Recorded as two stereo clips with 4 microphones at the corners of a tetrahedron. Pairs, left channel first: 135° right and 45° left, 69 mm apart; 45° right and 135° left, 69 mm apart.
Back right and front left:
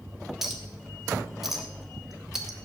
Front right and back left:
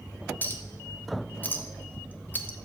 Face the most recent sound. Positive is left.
turn(degrees=-35)